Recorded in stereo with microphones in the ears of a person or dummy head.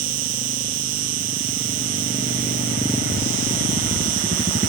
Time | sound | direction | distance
0.0 | an insect | 75° right (ahead or behind) | ?